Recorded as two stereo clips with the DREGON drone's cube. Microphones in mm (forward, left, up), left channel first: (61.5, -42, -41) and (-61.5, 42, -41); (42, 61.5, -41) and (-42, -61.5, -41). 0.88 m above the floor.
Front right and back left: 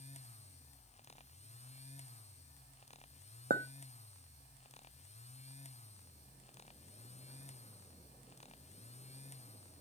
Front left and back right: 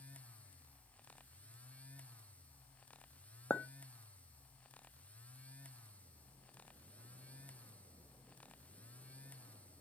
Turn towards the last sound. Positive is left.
turn(degrees=135)